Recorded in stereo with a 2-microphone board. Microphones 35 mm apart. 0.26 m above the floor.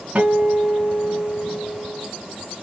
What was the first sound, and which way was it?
A guitar, 40° right (ahead or behind).